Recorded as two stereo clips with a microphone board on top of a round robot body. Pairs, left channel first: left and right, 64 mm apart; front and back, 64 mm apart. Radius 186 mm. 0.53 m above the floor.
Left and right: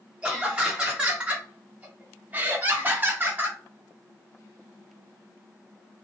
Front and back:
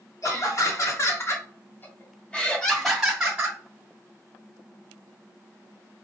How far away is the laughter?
About 1.7 m.